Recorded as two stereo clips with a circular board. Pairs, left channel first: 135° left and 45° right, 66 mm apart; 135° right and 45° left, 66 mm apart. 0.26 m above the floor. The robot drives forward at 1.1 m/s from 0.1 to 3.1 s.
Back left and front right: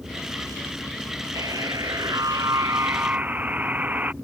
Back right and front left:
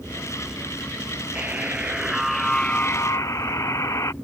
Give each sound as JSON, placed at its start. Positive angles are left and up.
{"t": 1.4, "sound": "a buzzer", "azimuth_deg": -20}